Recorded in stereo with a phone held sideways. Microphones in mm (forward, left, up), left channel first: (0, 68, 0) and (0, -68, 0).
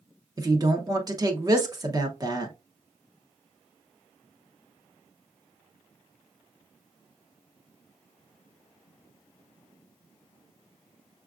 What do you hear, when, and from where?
0.4 s a woman speaking: 30° right (ahead or behind), 0.7 m